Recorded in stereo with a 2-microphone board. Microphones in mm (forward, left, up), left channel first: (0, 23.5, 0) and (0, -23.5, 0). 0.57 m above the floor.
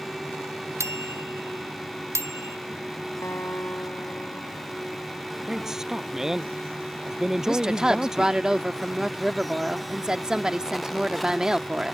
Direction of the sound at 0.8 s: 75° right (ahead or behind).